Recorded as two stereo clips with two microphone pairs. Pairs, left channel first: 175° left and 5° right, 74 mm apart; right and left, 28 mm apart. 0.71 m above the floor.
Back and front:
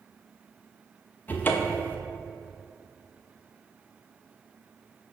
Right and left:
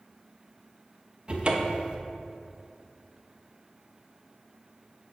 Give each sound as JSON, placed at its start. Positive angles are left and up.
{"t": 1.3, "sound": "a cupboard door", "azimuth_deg": 120, "distance_m": 0.6}